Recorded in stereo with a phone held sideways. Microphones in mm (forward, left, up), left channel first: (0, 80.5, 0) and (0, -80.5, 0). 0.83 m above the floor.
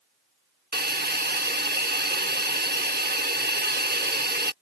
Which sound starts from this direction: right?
A hiss, at 0.7 s.